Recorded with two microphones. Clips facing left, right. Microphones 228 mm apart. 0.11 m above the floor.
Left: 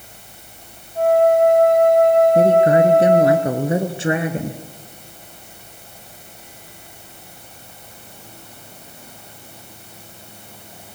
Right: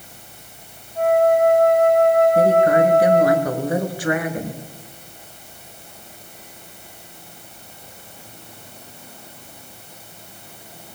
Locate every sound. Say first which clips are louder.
0.9 s a flute: left 2 dB; 40° left (ahead or behind), 9.5 m
2.4 s a woman speaking: left 2 dB; 25° left (ahead or behind), 1.7 m